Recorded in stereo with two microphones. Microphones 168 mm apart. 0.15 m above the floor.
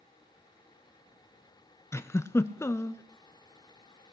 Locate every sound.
1.9 s a giggle: 15° left (ahead or behind), 0.5 m